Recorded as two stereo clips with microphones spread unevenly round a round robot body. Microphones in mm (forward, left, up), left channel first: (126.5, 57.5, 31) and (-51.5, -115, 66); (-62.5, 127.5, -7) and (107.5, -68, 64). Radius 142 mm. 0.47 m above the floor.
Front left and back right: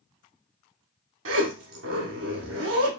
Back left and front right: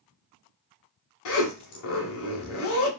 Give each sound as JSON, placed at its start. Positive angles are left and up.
{"t": 1.2, "sound": "a zipper", "azimuth_deg": 180, "distance_m": 0.6}